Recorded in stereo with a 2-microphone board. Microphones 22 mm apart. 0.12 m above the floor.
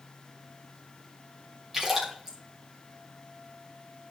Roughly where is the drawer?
No drawer in this recording.